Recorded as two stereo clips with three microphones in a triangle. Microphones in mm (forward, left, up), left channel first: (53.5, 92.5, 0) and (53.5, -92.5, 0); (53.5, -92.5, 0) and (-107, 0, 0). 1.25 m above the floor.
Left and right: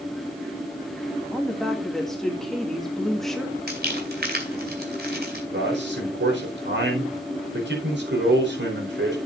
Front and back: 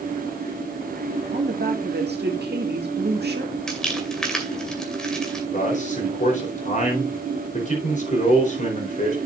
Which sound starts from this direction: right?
A man speaking, at 5.5 s.